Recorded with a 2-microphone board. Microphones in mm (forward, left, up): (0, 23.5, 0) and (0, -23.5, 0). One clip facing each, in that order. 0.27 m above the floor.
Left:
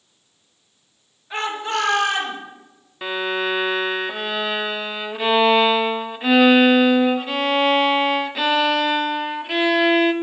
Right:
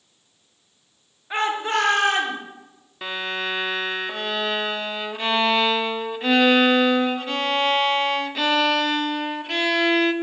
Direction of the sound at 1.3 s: 25° right (ahead or behind).